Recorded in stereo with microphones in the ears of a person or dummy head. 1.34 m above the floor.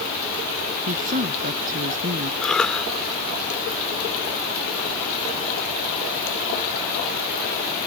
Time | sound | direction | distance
0.9 | a woman speaking | 40° right (ahead or behind) | ?
2.4 | a cough | centre (ahead or behind) | ?